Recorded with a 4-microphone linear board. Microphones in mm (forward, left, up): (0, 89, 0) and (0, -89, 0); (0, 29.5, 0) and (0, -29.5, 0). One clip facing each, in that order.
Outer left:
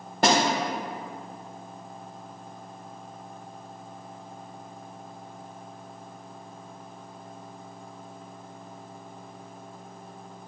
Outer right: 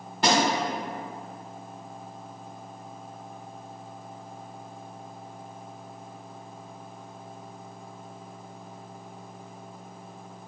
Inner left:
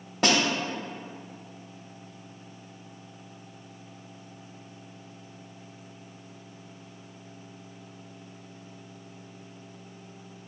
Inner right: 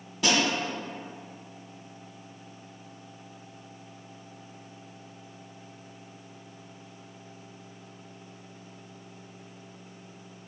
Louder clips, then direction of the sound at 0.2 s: Outer left 2 dB, inner left 2 dB; 45° left (ahead or behind).